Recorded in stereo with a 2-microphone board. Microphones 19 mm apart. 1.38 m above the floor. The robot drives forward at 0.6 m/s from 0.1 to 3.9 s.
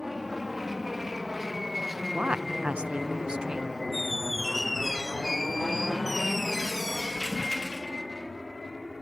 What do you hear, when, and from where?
0.0 s an aircraft: 10° right (ahead or behind); by 9.0 s 10° left (ahead or behind)
2.1 s a woman speaking: 75° right (ahead or behind); by 3.8 s 35° right (ahead or behind)
3.9 s a squeak: centre (ahead or behind)